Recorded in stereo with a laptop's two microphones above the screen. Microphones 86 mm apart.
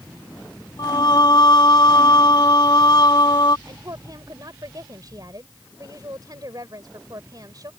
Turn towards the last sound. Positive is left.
turn(degrees=-45)  # may be behind; listen again after turning